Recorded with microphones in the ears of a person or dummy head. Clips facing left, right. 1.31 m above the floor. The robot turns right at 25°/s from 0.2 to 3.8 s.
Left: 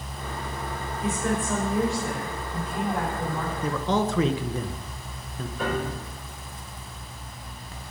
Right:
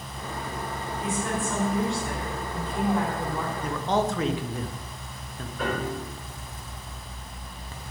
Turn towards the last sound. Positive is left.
turn(degrees=5)  # may be behind; listen again after turning